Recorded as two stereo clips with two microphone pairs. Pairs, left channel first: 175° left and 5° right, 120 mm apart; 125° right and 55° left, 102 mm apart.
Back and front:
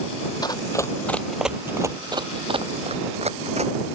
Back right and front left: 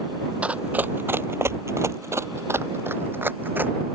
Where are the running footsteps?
130° left; by 3.7 s 15° right.